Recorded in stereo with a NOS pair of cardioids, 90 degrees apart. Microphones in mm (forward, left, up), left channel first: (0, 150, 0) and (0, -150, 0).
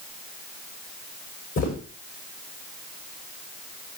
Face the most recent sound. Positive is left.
turn(degrees=60)